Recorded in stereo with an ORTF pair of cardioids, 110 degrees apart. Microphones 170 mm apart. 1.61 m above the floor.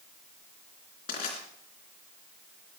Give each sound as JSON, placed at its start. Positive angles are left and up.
{"t": 1.1, "sound": "crushing", "azimuth_deg": 55, "distance_m": 3.5}